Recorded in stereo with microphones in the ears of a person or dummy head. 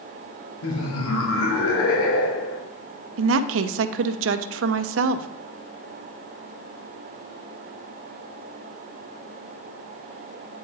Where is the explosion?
No explosion in this recording.